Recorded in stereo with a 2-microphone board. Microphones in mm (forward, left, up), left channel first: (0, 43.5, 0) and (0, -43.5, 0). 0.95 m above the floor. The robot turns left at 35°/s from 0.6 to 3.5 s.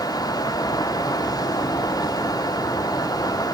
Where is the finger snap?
I don't hear a finger snap.